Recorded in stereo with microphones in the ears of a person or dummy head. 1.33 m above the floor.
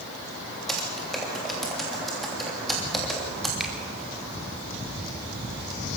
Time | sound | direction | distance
0.7 | typing on a keyboard | centre (ahead or behind) | 3 m
3.6 | a finger snap | centre (ahead or behind) | 3.5 m